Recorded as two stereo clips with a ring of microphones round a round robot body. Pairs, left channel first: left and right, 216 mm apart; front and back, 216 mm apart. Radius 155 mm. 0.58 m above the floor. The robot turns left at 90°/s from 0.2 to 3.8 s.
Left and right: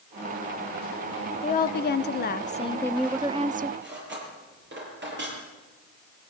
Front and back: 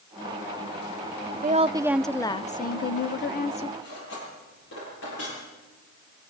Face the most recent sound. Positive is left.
turn(degrees=-55)